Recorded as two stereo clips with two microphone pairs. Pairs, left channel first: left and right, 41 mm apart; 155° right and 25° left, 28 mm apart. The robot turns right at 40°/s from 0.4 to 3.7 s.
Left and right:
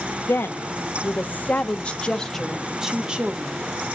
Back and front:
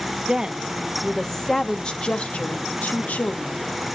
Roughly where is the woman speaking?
Left.